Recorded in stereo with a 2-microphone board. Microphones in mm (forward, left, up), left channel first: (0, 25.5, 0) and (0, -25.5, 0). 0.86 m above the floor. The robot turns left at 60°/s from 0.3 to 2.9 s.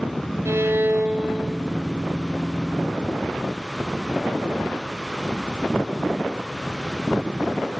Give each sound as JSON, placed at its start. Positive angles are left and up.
{"t": 0.5, "sound": "a violin", "azimuth_deg": -115, "distance_m": 1.2}